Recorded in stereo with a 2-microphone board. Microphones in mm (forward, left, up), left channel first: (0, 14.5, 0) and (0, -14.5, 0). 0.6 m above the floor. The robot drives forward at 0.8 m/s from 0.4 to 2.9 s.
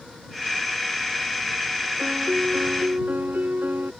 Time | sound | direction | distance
2.0 | a piano | 80° right | ?